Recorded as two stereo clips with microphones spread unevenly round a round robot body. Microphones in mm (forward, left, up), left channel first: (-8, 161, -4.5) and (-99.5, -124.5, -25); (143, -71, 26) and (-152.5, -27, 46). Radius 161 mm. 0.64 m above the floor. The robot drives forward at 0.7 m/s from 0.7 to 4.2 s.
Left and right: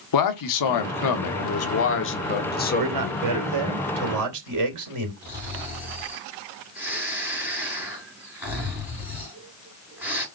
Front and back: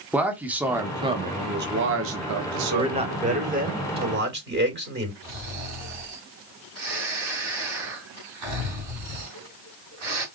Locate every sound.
0.1 s a man speaking: 85° left, 1.5 m; by 3.7 s 150° left, 2.5 m
2.7 s a man speaking: 110° right, 2.5 m; by 5.1 s 130° right, 3 m
5.2 s snoring: 170° left, 5 m